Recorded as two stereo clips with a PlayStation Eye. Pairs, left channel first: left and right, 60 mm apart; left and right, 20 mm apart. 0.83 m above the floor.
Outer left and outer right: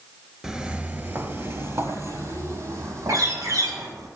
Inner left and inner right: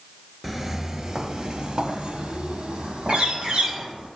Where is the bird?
85° right, 6 m.